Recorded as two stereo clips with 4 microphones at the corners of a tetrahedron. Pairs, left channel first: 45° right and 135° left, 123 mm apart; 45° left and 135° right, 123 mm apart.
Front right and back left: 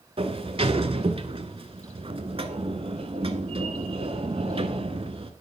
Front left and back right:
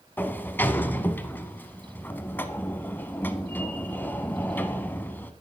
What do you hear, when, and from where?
0.2 s a sliding door: 120° left, 0.7 m